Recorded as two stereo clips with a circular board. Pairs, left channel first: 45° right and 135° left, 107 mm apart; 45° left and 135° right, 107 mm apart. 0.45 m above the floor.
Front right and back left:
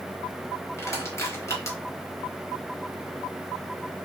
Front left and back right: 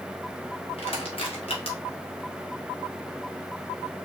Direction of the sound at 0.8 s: 20° left.